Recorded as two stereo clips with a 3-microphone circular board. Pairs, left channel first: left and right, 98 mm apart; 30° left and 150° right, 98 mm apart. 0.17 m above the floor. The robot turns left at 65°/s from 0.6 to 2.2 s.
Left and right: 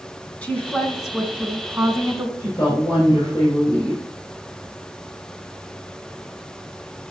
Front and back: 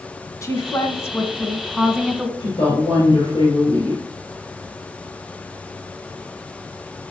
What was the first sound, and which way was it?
A woman speaking, 25° left.